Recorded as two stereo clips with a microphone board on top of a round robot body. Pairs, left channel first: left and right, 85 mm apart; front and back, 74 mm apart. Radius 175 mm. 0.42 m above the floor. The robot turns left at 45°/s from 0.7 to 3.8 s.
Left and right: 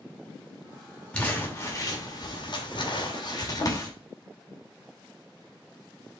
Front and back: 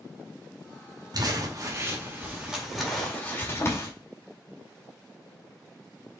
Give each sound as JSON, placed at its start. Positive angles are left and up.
{"t": 1.1, "sound": "crumpling", "azimuth_deg": 165, "distance_m": 2.5}